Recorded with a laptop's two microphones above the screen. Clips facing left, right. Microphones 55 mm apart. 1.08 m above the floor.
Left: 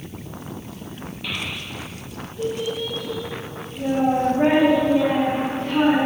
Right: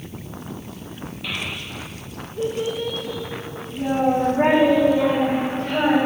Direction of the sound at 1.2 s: 5° right (ahead or behind).